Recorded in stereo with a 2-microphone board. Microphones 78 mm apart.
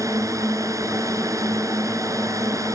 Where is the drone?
45° right (ahead or behind).